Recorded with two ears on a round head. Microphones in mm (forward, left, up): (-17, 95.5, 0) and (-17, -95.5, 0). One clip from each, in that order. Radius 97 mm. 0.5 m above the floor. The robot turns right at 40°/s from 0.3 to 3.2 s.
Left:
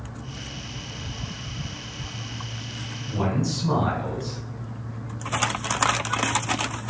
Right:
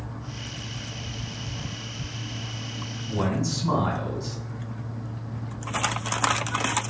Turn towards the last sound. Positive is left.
turn(degrees=-25)  # may be behind; listen again after turning